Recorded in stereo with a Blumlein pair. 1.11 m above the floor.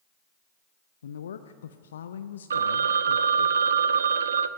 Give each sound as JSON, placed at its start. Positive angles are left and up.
{"t": 1.0, "sound": "a woman speaking", "azimuth_deg": 65, "distance_m": 0.7}
{"t": 2.5, "sound": "a phone ringing", "azimuth_deg": -70, "distance_m": 0.8}